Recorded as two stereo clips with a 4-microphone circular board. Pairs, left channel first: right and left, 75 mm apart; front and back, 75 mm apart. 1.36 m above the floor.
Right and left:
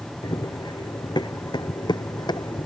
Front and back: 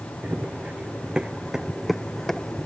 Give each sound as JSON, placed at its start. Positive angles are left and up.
{"t": 0.2, "sound": "running footsteps", "azimuth_deg": -110}